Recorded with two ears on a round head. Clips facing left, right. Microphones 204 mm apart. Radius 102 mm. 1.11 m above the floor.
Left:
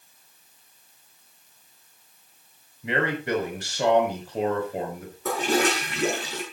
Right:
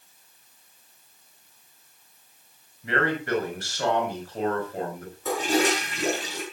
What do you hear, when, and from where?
2.8 s a man speaking: 20° left (ahead or behind), 6 m
5.2 s a toilet flushing: 50° left (ahead or behind), 5.5 m